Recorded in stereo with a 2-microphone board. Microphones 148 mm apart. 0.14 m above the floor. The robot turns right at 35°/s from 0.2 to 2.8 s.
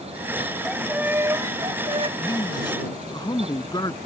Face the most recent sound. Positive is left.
turn(degrees=30)  # may be behind; listen again after turning